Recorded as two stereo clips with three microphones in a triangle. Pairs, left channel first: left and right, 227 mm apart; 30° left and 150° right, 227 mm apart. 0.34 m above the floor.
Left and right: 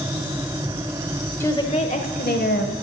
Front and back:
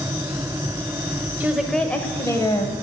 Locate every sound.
1.4 s a woman speaking: 145° left, 1.0 m; by 2.7 s 95° left, 1.7 m